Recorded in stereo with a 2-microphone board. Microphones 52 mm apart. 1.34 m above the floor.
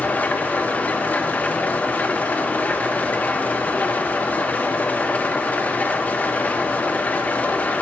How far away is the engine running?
About 0.7 m.